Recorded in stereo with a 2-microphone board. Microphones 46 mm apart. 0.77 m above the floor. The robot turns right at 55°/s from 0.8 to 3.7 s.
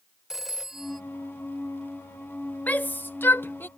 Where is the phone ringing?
10° right (ahead or behind); by 1.0 s centre (ahead or behind).